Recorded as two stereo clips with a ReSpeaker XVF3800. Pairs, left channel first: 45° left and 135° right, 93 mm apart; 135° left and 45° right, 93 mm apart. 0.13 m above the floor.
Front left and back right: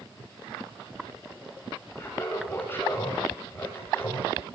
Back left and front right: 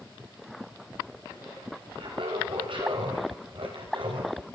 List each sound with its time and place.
2.0 s laughter: 25° right, 8 m